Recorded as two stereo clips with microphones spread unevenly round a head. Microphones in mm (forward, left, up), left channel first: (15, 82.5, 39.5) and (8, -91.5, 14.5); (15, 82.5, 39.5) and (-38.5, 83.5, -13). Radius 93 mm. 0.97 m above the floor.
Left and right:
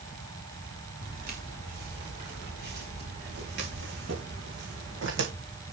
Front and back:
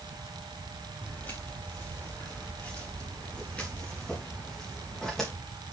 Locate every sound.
1.0 s footsteps: 50° right, 5 m; by 5.3 s 75° right, 3 m